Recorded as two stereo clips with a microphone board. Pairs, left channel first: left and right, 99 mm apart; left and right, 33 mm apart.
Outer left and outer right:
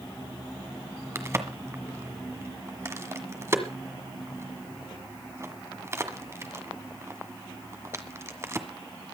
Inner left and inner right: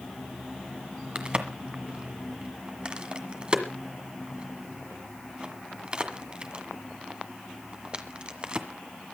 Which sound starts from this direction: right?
A crack, at 1.1 s.